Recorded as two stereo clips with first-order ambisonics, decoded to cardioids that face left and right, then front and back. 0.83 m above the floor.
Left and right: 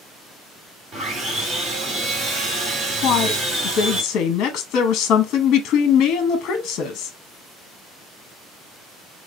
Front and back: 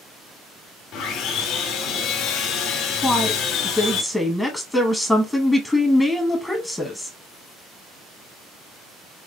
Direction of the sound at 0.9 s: 25° right.